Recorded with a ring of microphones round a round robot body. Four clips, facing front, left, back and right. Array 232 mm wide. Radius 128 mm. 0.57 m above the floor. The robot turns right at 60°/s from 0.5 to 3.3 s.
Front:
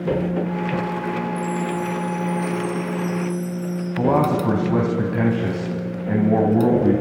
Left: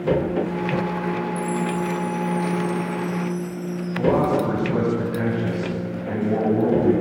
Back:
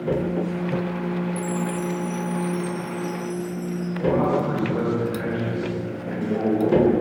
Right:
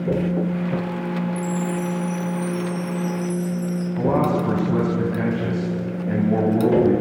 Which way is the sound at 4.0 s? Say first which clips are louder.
Left 1 dB, front 3 dB; 5° right.